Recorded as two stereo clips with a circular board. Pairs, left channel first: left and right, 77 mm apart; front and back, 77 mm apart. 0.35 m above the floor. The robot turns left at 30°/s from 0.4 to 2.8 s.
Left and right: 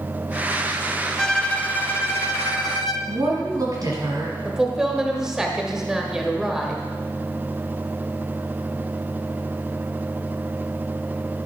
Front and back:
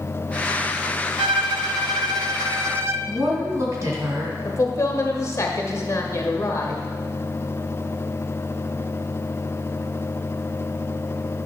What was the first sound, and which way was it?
A violin, 175° left.